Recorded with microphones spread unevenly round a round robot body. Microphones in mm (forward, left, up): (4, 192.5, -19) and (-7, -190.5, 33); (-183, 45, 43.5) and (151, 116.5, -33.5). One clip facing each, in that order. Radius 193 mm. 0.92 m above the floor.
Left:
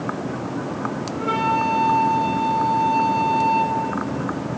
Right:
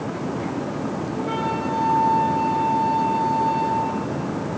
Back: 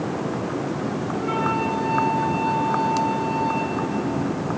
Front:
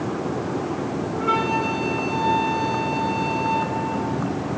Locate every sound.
1.1 s a flute: 35° left, 3 m